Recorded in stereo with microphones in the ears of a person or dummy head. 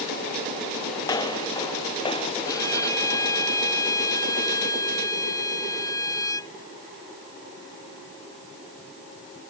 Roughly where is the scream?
No scream in this recording.